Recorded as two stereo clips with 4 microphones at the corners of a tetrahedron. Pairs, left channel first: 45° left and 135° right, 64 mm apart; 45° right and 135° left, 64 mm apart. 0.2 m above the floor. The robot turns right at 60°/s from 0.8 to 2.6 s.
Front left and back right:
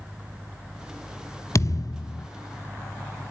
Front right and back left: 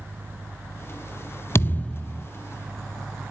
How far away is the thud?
About 0.6 m.